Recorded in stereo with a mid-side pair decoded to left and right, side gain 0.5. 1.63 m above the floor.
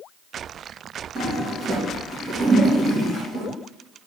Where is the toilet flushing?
45° right, 2 m.